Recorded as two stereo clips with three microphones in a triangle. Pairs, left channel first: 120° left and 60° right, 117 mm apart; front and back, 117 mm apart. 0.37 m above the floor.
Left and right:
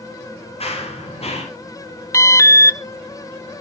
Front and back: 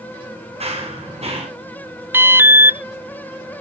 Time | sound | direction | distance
0.6 | running footsteps | 150° left | 7.5 m
2.1 | an alarm | 135° left | 0.5 m